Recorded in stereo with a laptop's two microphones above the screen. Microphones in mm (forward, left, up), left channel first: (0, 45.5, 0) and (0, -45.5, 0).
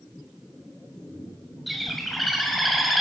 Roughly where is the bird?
Centre.